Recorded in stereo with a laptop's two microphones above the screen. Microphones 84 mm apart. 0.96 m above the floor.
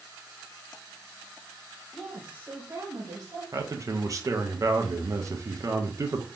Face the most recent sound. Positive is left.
turn(degrees=-40)  # may be behind; listen again after turning